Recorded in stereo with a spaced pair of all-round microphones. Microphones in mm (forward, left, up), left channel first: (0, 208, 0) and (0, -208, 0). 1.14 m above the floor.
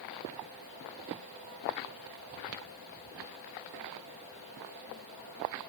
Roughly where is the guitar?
No guitar in this recording.